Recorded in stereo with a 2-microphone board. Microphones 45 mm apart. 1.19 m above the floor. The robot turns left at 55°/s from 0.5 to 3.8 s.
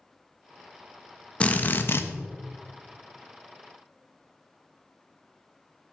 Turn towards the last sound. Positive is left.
turn(degrees=25)